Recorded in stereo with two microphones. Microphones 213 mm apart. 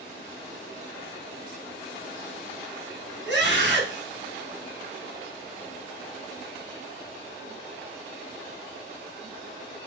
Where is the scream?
55° right (ahead or behind), 3 m.